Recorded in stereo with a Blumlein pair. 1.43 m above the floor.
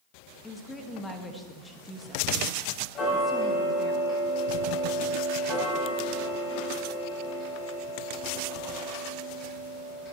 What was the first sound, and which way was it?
A woman speaking, 10° left.